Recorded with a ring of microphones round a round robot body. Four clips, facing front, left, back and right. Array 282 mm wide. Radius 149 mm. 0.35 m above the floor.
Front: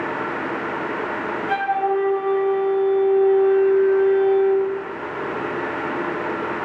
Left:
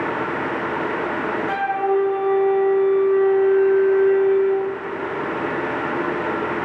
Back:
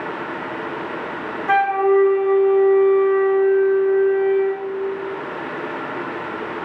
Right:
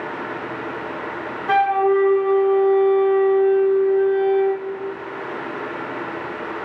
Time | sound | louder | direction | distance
1.5 | a flute | right 6 dB, back 6 dB | 150° right | 5 m